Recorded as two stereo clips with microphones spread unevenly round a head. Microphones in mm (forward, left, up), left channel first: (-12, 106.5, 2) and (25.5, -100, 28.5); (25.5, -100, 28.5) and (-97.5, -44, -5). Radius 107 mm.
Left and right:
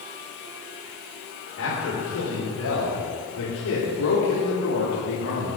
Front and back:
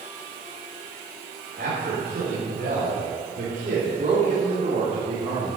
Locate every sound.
1.6 s a man speaking: 110° left, 4.5 m; by 5.6 s 100° left, 2 m